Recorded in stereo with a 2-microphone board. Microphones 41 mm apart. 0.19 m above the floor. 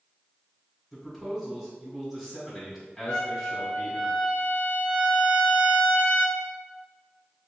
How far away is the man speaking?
About 1.7 m.